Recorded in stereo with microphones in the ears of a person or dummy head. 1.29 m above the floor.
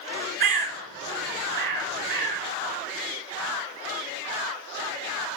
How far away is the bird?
About 5.5 m.